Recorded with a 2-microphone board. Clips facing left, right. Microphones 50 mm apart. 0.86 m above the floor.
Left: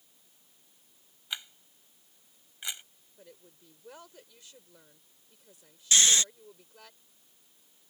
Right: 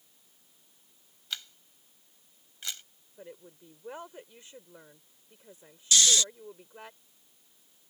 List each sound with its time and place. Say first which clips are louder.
1.3 s a camera shutter: left 1 dB; 15° left (ahead or behind)
3.2 s a woman speaking: right 7 dB; 30° right (ahead or behind)
5.9 s snoring: even; 30° left (ahead or behind)